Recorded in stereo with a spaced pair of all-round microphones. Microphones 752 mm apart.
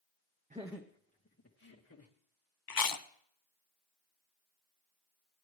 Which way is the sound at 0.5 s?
10° right (ahead or behind).